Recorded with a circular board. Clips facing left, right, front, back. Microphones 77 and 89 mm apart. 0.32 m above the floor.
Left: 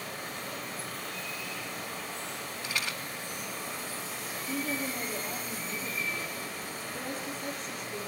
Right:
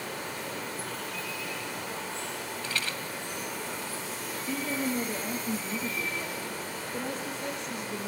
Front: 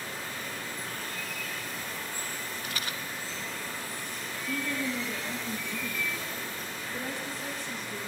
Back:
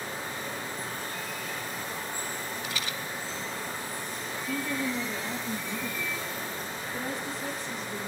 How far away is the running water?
About 9.5 m.